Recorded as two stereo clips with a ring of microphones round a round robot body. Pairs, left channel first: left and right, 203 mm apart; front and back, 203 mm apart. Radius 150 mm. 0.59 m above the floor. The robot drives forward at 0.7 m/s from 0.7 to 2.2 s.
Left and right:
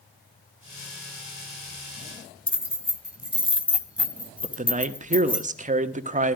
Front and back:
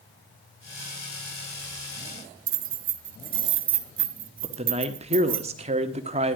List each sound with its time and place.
2.5 s keys jangling: 175° right, 1.3 m
4.4 s a man speaking: 130° right, 1.2 m